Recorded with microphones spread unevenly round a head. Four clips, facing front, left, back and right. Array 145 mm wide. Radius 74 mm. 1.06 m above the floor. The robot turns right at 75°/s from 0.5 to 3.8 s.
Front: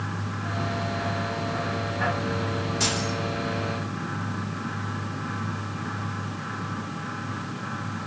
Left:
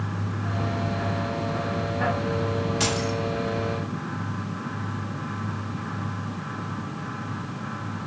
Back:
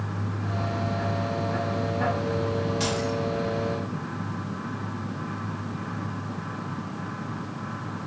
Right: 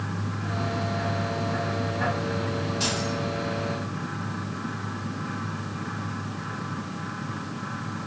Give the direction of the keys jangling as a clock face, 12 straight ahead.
9 o'clock.